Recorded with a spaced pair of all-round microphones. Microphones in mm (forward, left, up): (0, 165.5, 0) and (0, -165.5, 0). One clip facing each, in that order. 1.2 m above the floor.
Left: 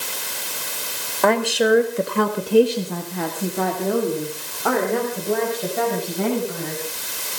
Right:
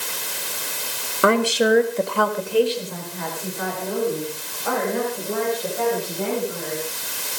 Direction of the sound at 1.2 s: 15° right (ahead or behind).